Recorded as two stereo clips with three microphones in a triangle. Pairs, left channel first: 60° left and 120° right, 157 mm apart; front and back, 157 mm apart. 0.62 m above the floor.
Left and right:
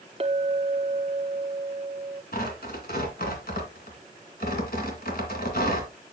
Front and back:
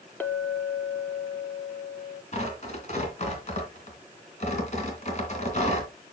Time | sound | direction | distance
0.2 | a clink | 75° right | 0.8 m
2.3 | tearing paper | 40° left | 2.5 m